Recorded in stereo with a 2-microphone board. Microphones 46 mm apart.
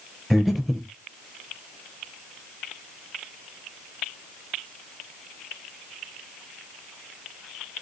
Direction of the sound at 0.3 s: Centre (ahead or behind).